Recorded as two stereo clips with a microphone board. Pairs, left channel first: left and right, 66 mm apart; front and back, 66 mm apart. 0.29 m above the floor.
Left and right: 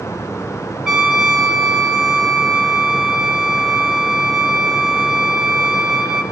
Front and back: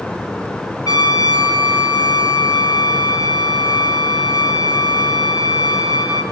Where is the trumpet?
5° right, 3.5 m.